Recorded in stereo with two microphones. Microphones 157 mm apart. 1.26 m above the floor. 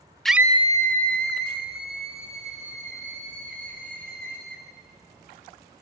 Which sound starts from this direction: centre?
A scream, at 0.2 s.